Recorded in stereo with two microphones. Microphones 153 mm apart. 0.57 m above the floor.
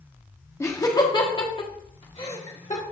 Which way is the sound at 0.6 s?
20° left (ahead or behind).